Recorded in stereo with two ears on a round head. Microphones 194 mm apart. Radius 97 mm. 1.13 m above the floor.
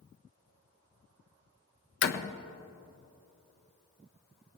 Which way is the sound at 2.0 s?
55° left (ahead or behind).